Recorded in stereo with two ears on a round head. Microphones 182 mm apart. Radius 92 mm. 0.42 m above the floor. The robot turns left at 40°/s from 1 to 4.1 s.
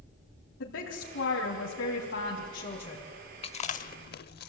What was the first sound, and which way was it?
A woman speaking, 105° left.